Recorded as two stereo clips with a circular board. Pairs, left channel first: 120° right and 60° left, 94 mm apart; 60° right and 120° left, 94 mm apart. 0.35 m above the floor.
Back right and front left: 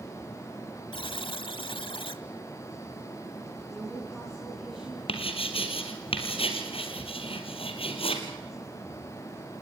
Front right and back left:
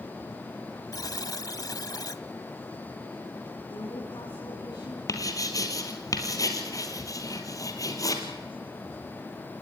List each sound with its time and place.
0.9 s a buzzer: 105° right, 0.9 m
3.7 s a woman speaking: 30° right, 4.5 m
5.1 s writing: 110° right, 3 m